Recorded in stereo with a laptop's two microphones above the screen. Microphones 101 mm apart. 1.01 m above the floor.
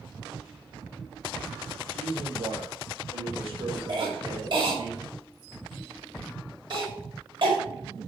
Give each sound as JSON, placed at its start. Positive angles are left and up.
{"t": 1.9, "sound": "a man speaking", "side_deg": -80, "distance_m": 3.0}
{"t": 3.9, "sound": "a cough", "side_deg": -55, "distance_m": 5.5}